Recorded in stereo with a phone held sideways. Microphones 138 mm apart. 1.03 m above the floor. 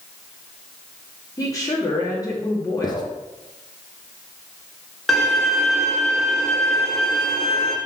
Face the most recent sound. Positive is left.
turn(degrees=0)  # may be behind; listen again after turning